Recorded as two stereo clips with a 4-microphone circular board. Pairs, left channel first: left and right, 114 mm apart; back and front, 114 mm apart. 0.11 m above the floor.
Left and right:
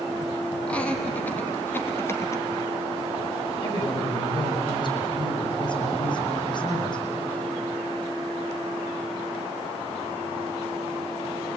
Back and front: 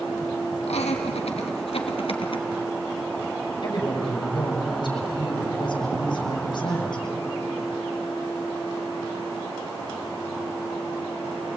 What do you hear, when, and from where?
0.7 s laughter: 170° left, 4 m; by 2.5 s 150° left, 2.5 m
3.6 s a woman speaking: 135° left, 6 m